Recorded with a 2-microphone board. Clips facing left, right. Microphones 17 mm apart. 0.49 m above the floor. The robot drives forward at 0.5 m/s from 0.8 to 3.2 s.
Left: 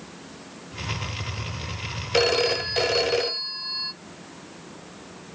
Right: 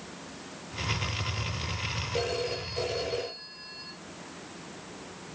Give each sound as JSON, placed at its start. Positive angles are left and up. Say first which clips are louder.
{"t": 2.1, "sound": "a phone ringing", "louder": "left 12 dB", "side_deg": 60, "distance_m": 0.7}